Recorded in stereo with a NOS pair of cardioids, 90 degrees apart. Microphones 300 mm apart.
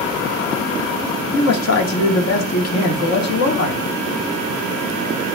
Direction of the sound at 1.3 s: 60° left.